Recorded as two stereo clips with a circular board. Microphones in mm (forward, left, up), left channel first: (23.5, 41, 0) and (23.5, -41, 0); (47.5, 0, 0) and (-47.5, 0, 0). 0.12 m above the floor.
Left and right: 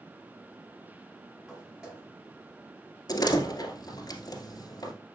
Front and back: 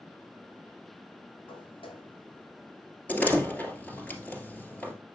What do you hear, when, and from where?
1.5 s footsteps: 5° right, 5 m; by 4.1 s 25° right, 5 m
3.1 s a door slam: 70° left, 2 m